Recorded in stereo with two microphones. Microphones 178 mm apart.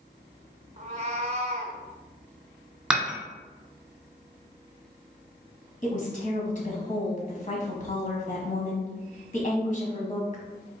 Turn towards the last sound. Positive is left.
turn(degrees=45)  # may be behind; listen again after turning